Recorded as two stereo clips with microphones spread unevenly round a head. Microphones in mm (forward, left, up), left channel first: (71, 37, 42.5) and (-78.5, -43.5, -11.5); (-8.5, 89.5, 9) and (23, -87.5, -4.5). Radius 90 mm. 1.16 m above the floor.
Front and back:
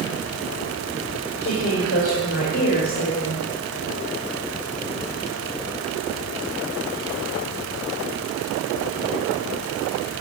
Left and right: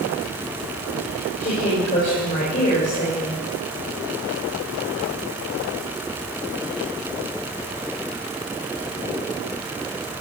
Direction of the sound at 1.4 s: 50° left.